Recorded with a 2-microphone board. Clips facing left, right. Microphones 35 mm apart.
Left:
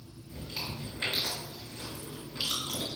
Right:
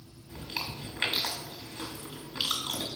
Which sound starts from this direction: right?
Chewing, at 0.3 s.